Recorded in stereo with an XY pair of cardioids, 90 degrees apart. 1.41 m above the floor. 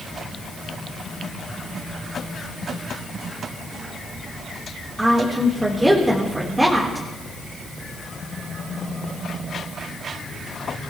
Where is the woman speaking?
15° right, 3.5 m.